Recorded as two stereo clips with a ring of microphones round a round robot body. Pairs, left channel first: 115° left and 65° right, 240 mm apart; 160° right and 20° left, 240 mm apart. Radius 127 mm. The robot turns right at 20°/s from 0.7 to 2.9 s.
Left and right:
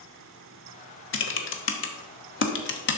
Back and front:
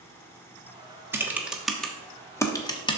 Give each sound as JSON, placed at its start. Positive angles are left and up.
{"t": 1.1, "sound": "typing on a keyboard", "azimuth_deg": 100, "distance_m": 1.1}